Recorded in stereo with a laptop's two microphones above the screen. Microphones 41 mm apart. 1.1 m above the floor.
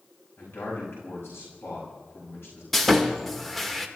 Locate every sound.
0.4 s a man speaking: 80° left, 6 m
2.7 s sawing: 5° left (ahead or behind), 1.3 m